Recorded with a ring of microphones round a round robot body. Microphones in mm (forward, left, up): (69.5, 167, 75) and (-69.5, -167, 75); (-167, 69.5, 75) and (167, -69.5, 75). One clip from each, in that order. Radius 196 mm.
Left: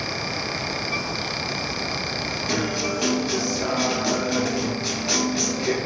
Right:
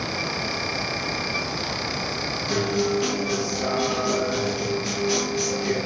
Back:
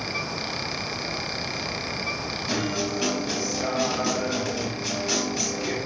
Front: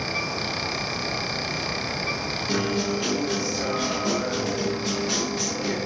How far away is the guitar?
About 3 m.